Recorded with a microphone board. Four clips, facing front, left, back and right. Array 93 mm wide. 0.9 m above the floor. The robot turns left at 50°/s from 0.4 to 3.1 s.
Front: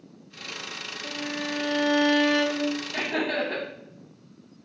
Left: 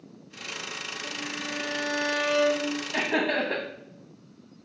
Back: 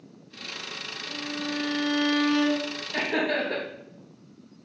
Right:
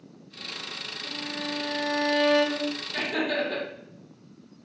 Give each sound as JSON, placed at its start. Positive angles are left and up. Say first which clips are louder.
{"t": 1.0, "sound": "a violin", "louder": "right 3 dB, front 1 dB", "azimuth_deg": 30, "distance_m": 1.2}
{"t": 2.9, "sound": "laughter", "louder": "left 2 dB, back 1 dB", "azimuth_deg": 105, "distance_m": 0.9}